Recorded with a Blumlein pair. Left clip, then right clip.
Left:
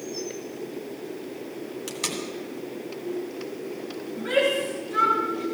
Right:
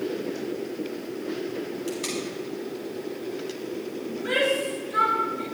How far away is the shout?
About 2.5 m.